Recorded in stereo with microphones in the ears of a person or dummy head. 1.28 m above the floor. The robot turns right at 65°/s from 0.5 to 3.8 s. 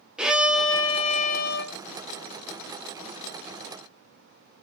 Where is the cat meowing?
No cat meowing in this recording.